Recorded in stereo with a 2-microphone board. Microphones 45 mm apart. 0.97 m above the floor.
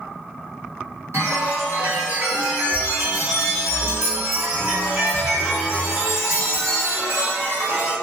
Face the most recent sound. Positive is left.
turn(degrees=-65)  # may be behind; listen again after turning